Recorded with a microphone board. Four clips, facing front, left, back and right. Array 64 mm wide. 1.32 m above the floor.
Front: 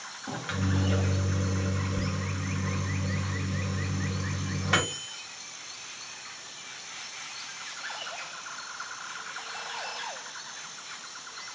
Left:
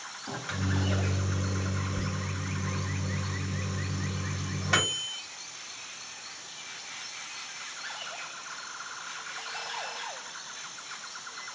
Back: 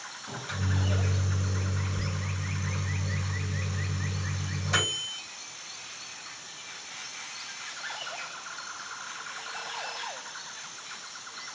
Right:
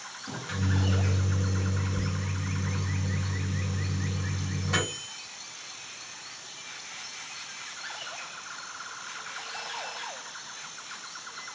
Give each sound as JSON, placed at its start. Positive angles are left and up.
{"t": 0.3, "sound": "a microwave", "azimuth_deg": 25, "distance_m": 1.5}